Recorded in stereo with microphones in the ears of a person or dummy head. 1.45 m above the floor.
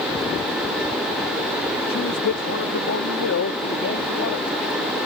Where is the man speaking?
85° left; by 5.1 s 75° left (ahead or behind).